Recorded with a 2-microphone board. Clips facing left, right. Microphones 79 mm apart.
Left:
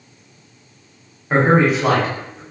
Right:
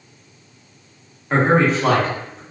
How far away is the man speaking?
About 1.1 m.